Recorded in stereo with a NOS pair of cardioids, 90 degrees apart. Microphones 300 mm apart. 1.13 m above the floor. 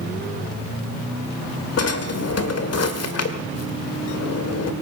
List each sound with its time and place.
1.8 s a drawer: 60° left, 2.0 m